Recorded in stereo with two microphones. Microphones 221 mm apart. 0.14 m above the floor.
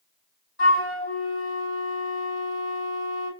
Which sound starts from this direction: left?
A flute, at 0.6 s.